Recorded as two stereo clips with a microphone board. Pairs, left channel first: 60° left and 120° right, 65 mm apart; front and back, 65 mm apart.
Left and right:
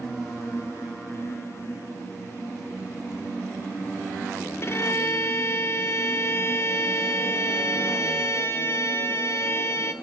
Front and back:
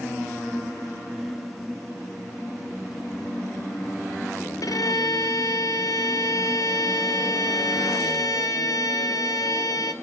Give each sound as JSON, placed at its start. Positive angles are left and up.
{"t": 4.6, "sound": "a violin", "azimuth_deg": 15, "distance_m": 0.8}